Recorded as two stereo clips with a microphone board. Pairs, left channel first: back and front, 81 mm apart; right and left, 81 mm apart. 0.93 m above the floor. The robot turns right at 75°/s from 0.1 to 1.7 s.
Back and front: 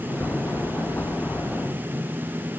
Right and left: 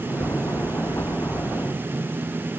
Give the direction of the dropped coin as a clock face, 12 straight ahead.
No dropped coin in this recording.